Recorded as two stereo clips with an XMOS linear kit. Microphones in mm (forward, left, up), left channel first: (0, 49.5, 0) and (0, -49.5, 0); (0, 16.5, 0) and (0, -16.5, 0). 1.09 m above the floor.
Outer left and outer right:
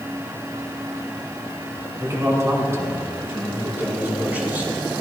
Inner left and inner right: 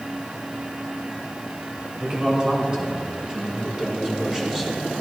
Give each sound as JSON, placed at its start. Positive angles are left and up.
{"t": 2.0, "sound": "a man speaking", "side_deg": -35, "distance_m": 5.5}